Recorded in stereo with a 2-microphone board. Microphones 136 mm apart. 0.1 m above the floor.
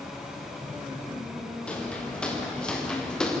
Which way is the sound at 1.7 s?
10° left (ahead or behind).